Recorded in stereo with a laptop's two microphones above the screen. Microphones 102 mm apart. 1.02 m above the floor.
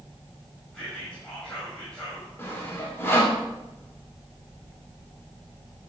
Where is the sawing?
25° left (ahead or behind), 3 m.